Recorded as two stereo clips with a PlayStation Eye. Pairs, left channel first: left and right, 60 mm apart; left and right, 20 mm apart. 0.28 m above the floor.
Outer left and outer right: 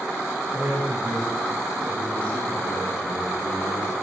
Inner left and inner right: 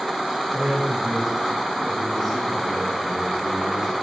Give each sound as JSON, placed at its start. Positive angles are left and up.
{"t": 0.5, "sound": "a man speaking", "side_deg": -40, "distance_m": 5.0}